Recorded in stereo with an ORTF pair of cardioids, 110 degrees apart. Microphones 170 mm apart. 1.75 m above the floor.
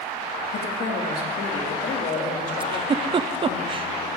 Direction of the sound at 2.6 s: 30° right.